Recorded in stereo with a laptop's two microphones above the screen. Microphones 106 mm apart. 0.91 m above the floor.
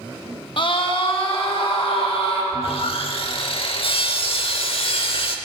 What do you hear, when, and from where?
0.6 s a scream: 50° left (ahead or behind), 1.3 m; by 2.4 s 65° left (ahead or behind), 3 m
2.5 s sawing: 60° left (ahead or behind), 0.9 m